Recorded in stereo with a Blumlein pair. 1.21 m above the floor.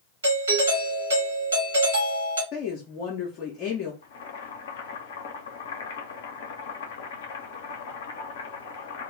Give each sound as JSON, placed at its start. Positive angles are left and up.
{"t": 0.2, "sound": "a doorbell", "azimuth_deg": -70, "distance_m": 1.1}
{"t": 2.5, "sound": "a woman speaking", "azimuth_deg": 35, "distance_m": 0.6}
{"t": 4.0, "sound": "boiling", "azimuth_deg": 55, "distance_m": 0.6}